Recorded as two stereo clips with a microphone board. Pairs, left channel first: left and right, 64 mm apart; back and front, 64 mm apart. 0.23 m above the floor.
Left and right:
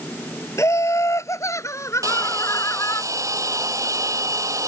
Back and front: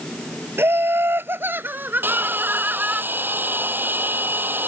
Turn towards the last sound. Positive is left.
turn(degrees=-60)